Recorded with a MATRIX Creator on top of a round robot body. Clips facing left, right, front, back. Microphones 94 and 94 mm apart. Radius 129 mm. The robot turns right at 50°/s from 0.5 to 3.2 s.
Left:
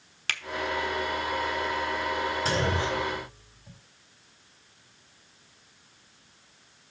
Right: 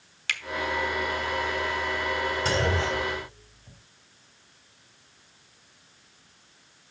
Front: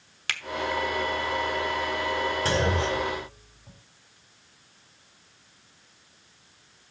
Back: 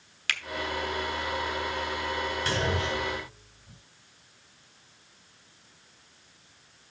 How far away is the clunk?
About 2 m.